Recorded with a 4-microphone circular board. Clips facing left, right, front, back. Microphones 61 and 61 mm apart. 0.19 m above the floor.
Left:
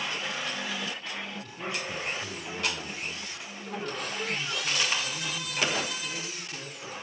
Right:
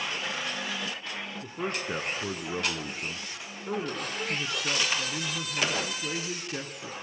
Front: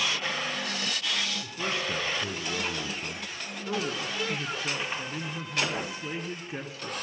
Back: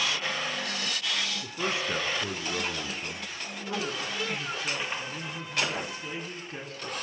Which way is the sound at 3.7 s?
75° right.